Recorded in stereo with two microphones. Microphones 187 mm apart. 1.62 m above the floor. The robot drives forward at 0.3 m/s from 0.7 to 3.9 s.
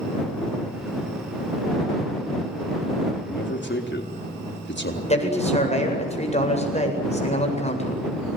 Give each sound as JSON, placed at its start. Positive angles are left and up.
{"t": 3.2, "sound": "a man speaking", "side_deg": 70, "distance_m": 4.0}
{"t": 5.1, "sound": "a man speaking", "side_deg": 35, "distance_m": 8.0}